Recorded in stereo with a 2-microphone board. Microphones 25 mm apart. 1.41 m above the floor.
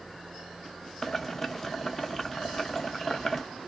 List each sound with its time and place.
1.0 s boiling: 10° left (ahead or behind), 0.5 m